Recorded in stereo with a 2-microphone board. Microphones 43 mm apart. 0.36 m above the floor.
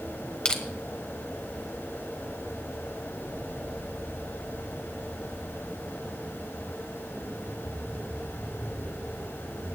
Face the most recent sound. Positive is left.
turn(degrees=25)  # may be behind; listen again after turning